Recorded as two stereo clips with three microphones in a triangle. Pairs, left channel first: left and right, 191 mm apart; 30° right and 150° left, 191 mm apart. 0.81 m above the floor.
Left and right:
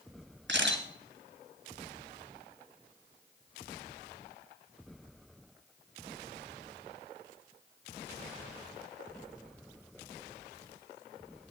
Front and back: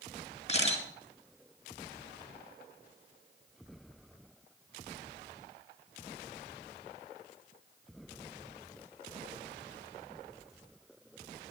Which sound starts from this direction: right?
A camera shutter, at 0.5 s.